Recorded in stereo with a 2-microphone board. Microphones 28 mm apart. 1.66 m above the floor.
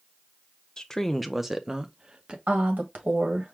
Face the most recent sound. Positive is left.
turn(degrees=-70)  # may be behind; listen again after turning